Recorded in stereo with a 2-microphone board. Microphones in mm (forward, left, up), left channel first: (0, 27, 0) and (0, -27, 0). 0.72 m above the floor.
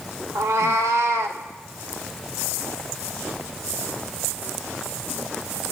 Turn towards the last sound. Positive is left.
turn(degrees=-70)  # may be behind; listen again after turning